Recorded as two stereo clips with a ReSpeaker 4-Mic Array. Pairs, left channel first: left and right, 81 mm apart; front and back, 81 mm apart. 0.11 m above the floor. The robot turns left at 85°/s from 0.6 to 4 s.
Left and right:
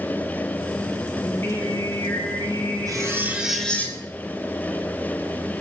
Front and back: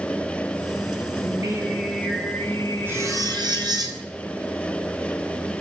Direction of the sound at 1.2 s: 160° left.